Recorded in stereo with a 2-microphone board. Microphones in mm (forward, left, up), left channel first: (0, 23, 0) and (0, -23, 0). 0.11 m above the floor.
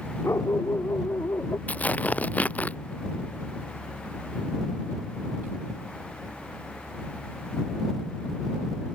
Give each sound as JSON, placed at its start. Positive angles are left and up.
{"t": 0.2, "sound": "a dog barking", "side_deg": 85}
{"t": 1.7, "sound": "tearing paper", "side_deg": 35}